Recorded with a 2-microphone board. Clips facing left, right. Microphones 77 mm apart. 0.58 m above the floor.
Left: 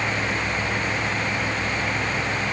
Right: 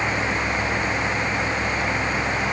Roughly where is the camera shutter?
I don't hear a camera shutter.